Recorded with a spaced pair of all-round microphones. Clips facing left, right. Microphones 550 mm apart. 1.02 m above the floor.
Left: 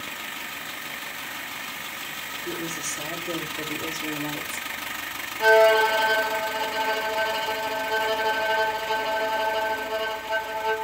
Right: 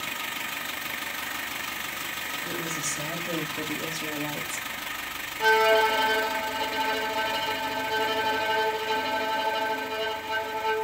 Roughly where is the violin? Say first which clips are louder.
Left 4 dB; right.